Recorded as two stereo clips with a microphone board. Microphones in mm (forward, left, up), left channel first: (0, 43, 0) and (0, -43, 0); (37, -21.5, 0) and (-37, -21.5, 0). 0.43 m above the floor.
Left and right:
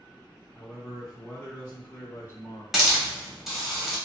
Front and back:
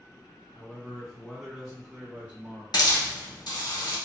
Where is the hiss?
5° right, 1.0 m.